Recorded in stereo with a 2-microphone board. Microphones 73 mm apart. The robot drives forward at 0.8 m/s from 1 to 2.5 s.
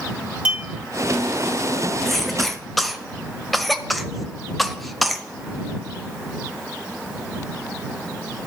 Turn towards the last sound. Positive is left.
turn(degrees=0)  # may be behind; listen again after turning